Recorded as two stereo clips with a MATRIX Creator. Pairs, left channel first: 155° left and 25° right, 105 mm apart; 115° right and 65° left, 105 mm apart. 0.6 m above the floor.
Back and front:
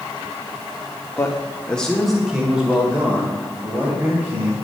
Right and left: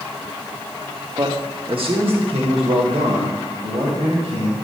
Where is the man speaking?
100° left, 1.1 m; by 4.5 s 45° left, 3 m.